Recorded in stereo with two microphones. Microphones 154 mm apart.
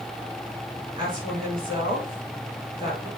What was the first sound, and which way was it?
A woman speaking, 30° right (ahead or behind).